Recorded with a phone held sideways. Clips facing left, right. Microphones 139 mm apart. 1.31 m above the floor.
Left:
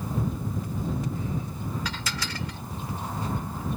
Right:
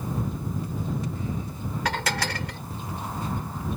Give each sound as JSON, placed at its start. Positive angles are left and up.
{"t": 1.9, "sound": "dishes clattering", "side_deg": -75}